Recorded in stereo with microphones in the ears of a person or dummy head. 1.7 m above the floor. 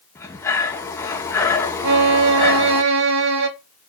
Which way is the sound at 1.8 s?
70° right (ahead or behind).